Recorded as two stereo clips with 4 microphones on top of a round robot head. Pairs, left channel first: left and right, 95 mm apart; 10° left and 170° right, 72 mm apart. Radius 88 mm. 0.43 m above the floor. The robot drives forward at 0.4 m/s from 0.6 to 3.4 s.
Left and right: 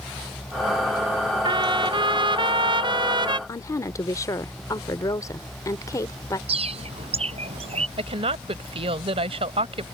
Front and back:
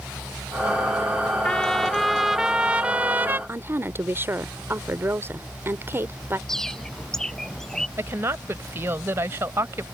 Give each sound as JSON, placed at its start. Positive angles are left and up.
{"t": 1.4, "sound": "a trumpet", "azimuth_deg": -65}
{"t": 3.5, "sound": "a woman speaking", "azimuth_deg": 140}
{"t": 6.5, "sound": "a bird", "azimuth_deg": -75}
{"t": 8.0, "sound": "a woman speaking", "azimuth_deg": -110}